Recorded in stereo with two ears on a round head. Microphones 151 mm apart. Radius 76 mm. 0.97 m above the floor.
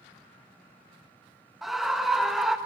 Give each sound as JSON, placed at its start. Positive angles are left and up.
{"t": 1.6, "sound": "a scream", "side_deg": 0, "distance_m": 1.2}